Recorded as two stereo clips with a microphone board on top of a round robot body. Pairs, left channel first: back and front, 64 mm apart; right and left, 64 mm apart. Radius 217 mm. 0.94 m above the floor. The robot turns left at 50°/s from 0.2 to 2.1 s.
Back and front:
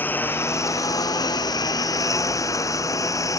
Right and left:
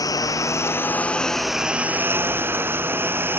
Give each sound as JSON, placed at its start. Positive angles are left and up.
{"t": 0.0, "sound": "a lawn mower", "azimuth_deg": -120}